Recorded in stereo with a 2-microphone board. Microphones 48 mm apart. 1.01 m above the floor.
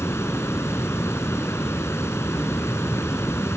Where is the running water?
85° left.